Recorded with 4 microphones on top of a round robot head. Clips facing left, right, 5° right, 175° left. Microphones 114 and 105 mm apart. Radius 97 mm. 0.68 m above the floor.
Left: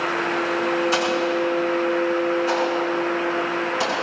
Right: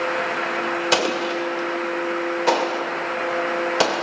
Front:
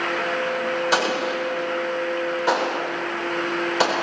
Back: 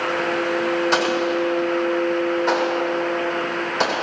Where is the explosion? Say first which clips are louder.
Left 1 dB, back 3 dB; 90° right, 1.9 m.